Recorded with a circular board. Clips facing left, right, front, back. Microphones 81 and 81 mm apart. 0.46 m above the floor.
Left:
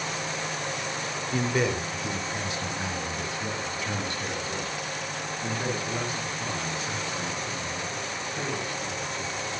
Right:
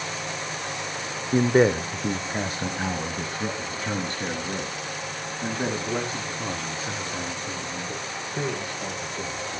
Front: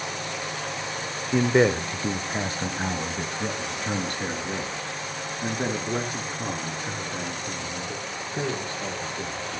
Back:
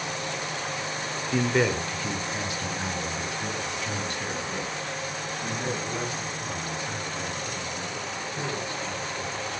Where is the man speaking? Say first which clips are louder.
Right 8 dB, front 4 dB; 65° right, 1.0 m; by 9.6 s 40° right, 11 m.